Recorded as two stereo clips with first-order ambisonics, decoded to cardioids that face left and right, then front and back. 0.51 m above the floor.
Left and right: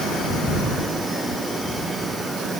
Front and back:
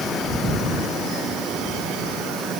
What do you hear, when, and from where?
Only background noise.